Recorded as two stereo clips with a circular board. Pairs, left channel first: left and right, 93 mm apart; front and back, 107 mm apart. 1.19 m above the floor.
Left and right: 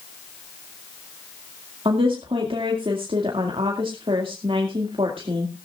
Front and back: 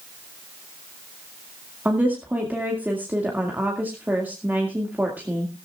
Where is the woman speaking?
105° right, 2 m.